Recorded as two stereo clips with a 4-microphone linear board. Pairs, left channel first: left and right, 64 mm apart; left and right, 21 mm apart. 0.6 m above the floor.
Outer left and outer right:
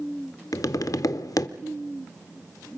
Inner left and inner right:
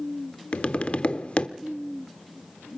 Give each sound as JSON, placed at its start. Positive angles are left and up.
{"t": 0.5, "sound": "tapping", "side_deg": 65, "distance_m": 0.6}